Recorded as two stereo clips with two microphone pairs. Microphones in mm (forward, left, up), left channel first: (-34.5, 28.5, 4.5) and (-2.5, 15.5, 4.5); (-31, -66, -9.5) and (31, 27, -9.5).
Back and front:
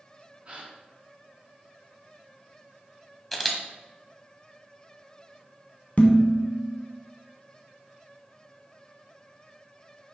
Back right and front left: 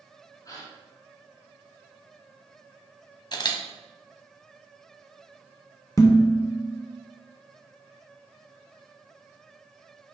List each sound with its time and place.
0.5 s a gasp: 70° right, 3 m
3.3 s a camera shutter: 115° right, 1.4 m
6.0 s dishes clattering: 175° right, 1.6 m